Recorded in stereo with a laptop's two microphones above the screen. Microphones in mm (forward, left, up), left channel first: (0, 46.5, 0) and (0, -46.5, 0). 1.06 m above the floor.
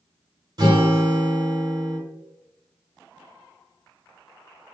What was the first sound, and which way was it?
A guitar, 45° right (ahead or behind).